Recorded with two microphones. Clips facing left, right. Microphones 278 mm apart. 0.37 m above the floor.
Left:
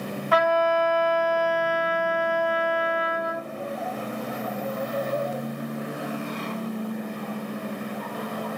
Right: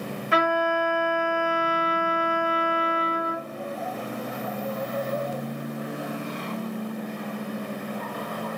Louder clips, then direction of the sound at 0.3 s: Left 2 dB; 30° right (ahead or behind).